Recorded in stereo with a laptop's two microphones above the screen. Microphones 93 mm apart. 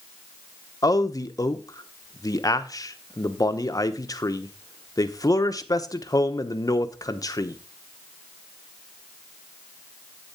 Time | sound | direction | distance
0.8 | a man speaking | 40° left (ahead or behind) | 0.8 m